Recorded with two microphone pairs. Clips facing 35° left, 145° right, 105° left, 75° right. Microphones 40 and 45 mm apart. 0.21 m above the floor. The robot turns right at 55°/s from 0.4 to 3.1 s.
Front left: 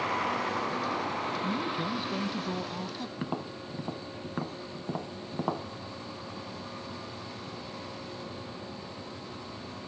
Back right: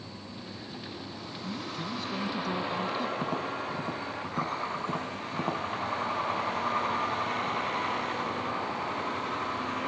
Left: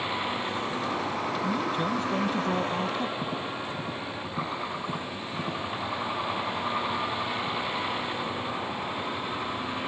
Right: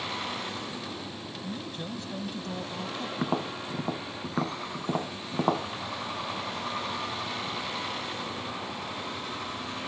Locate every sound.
0.0 s a vehicle: 30° left; by 9.9 s straight behind
1.4 s a man speaking: 60° left; by 3.1 s 150° left
3.2 s tapping: 50° right